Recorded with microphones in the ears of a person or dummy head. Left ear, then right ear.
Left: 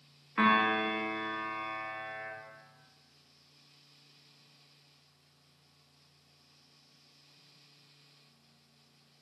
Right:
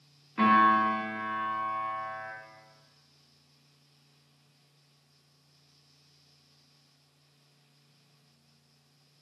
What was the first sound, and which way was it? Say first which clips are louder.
A piano: right 5 dB; 40° left (ahead or behind).